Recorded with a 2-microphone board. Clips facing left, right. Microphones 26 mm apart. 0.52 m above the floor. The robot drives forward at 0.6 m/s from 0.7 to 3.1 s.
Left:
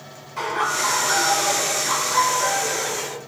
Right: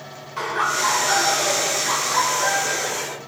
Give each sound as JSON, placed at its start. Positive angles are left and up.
{"t": 0.4, "sound": "laughter", "side_deg": -10, "distance_m": 2.5}